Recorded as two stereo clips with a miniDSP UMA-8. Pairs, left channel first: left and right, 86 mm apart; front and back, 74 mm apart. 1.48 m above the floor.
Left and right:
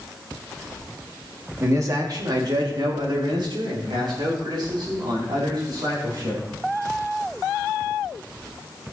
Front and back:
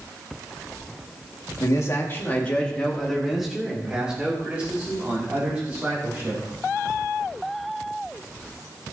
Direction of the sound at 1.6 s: 40° right.